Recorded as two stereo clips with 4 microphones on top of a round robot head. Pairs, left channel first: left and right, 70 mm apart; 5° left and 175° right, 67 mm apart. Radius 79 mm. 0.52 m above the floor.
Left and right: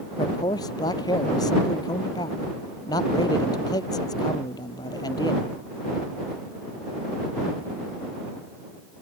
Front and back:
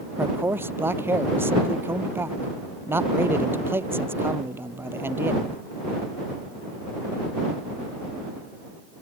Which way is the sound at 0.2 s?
125° left.